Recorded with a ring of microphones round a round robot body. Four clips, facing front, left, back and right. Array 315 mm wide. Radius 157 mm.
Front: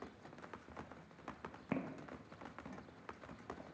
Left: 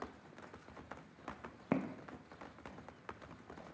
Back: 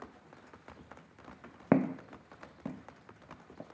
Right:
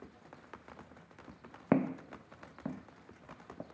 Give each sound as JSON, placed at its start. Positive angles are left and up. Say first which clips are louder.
{"t": 1.7, "sound": "footsteps", "louder": "right 7 dB, back 15 dB", "azimuth_deg": -155, "distance_m": 0.8}